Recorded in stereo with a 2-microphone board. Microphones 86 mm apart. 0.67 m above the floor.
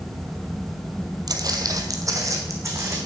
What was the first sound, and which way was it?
Footsteps, 50° right (ahead or behind).